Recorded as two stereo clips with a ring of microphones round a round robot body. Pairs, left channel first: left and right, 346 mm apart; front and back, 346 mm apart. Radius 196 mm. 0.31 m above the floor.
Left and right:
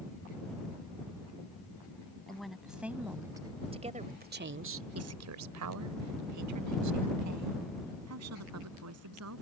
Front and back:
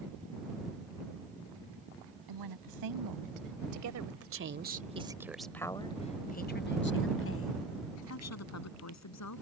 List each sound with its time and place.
2.3 s a woman speaking: straight behind; by 9.4 s 40° right